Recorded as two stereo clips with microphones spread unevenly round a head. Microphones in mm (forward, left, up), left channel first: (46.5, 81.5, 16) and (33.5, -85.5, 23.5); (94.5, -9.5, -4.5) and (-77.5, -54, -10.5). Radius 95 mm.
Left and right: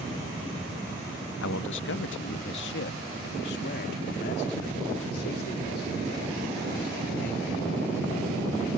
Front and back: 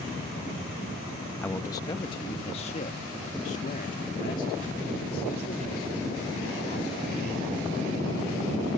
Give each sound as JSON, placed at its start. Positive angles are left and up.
{"t": 1.4, "sound": "a man speaking", "azimuth_deg": 95}